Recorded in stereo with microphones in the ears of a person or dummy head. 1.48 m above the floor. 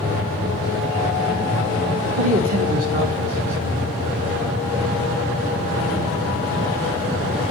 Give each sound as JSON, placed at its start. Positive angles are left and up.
{"t": 2.2, "sound": "a man speaking", "side_deg": -35, "distance_m": 2.0}